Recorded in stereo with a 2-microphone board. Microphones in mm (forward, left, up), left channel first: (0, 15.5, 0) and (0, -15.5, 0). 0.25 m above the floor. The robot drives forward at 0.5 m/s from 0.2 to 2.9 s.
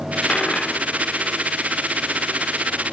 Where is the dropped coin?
35° left (ahead or behind), 0.9 m; by 2.9 s 15° left (ahead or behind), 2 m.